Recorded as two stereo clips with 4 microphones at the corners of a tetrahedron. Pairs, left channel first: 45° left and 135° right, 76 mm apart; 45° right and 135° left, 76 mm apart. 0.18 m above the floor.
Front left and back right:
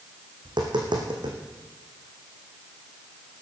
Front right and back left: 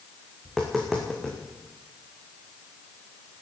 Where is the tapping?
135° right, 3.5 m.